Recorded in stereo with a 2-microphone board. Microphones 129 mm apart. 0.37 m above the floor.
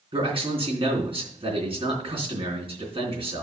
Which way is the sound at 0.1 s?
45° right (ahead or behind).